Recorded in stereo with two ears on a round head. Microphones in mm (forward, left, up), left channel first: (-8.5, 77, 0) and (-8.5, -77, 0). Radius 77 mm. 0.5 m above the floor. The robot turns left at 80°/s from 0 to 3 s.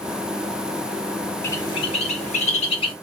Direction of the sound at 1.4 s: 15° left (ahead or behind).